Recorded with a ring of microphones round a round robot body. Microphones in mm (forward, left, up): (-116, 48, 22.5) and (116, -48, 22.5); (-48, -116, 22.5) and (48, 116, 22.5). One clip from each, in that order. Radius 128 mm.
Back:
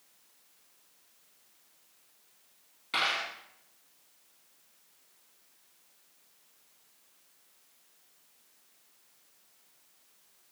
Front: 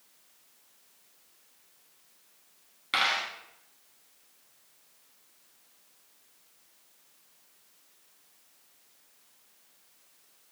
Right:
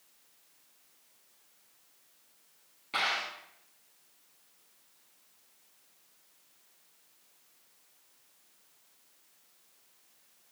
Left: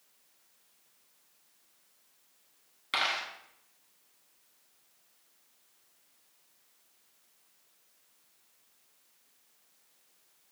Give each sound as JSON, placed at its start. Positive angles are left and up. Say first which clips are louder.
{"t": 2.9, "sound": "a dropped coin", "louder": "front 3 dB, even", "azimuth_deg": 40, "distance_m": 1.4}